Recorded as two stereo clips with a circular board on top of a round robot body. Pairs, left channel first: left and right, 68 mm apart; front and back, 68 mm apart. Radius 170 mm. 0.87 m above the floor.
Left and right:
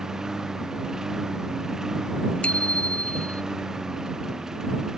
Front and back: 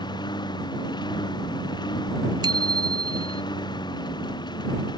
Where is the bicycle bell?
165° left.